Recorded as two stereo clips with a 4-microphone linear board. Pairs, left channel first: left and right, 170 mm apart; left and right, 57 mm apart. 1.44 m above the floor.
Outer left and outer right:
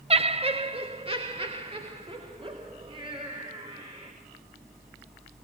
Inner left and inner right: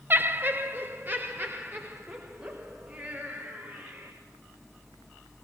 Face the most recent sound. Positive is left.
turn(degrees=-30)  # may be behind; listen again after turning